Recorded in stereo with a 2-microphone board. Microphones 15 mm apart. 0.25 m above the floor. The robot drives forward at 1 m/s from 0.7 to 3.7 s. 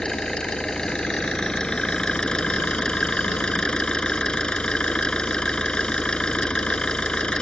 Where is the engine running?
45° left (ahead or behind); by 7.4 s 70° left (ahead or behind).